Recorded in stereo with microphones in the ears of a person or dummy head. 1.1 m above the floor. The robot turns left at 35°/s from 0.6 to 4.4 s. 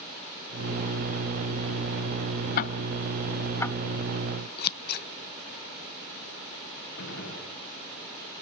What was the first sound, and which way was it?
Ticking, 55° left (ahead or behind).